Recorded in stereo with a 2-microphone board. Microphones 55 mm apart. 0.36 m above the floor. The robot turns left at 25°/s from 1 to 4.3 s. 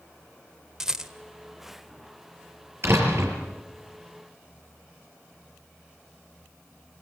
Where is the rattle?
10° right (ahead or behind), 1.5 m.